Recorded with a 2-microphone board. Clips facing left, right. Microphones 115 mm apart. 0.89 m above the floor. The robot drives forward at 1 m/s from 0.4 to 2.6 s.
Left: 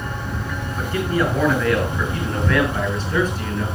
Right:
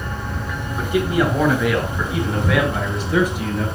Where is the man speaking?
15° right (ahead or behind), 6.5 m; by 3.6 s 10° right (ahead or behind), 8 m.